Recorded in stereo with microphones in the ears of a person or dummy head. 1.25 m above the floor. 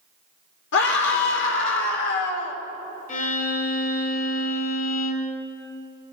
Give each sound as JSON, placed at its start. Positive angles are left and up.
{"t": 0.7, "sound": "a scream", "side_deg": 70, "distance_m": 4.0}
{"t": 3.1, "sound": "a violin", "side_deg": 50, "distance_m": 3.5}